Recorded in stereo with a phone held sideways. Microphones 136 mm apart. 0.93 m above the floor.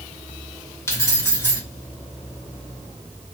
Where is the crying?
I don't hear crying.